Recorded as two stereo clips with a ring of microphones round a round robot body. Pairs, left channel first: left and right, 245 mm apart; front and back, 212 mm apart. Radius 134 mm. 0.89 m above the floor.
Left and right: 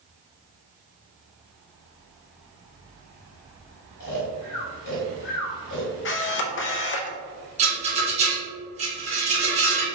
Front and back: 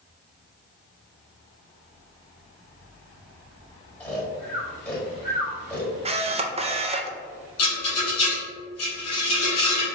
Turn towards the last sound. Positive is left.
turn(degrees=-25)